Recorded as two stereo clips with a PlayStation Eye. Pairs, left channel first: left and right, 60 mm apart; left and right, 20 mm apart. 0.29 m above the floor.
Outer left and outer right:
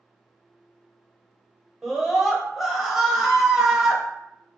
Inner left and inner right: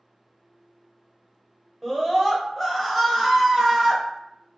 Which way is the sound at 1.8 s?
5° right (ahead or behind).